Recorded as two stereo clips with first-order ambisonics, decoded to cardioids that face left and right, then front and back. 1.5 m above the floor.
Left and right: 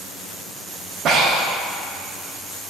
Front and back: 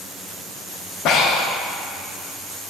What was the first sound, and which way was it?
Breathing, 40° right.